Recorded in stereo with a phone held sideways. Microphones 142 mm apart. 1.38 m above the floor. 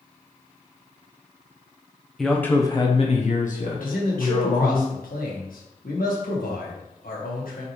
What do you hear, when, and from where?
2.2 s a man speaking: centre (ahead or behind), 0.8 m; by 4.8 s 75° left (ahead or behind), 1.7 m
3.8 s a man speaking: 85° left, 1.3 m